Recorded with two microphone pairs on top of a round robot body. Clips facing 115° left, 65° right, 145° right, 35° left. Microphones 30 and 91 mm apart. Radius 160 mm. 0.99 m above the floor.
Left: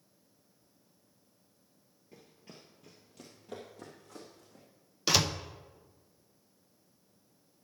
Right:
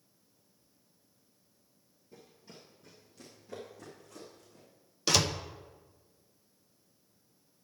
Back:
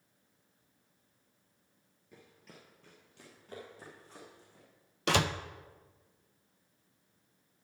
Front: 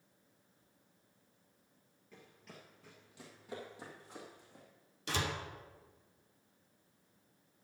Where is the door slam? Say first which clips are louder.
Even, back 8 dB; 165° right, 0.7 m.